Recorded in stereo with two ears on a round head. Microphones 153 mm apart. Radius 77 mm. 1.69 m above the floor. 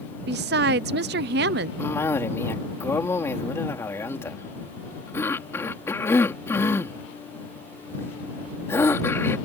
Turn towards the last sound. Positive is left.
turn(degrees=15)  # may be behind; listen again after turning